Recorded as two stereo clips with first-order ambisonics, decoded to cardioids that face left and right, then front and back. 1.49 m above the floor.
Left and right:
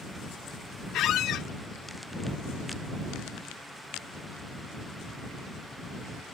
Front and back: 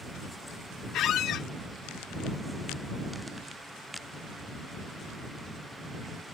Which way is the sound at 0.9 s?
45° left.